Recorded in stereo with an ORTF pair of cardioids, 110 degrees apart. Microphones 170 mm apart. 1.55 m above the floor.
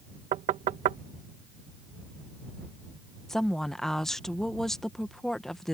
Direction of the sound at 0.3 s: 55° right.